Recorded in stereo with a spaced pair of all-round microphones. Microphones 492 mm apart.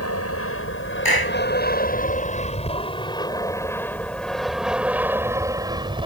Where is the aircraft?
30° left (ahead or behind); by 6.1 s 10° right (ahead or behind).